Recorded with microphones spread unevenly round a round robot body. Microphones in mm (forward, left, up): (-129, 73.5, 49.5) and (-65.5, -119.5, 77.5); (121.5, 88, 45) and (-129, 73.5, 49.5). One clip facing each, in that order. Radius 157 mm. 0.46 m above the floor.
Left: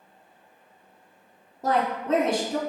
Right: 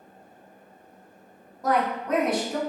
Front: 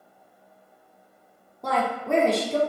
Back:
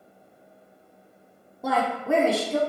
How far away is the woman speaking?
About 1.0 m.